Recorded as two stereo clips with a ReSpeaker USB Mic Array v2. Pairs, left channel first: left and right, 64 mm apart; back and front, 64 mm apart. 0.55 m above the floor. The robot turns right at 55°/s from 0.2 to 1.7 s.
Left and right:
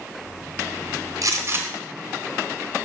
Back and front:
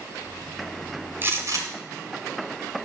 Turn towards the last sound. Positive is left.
turn(degrees=-30)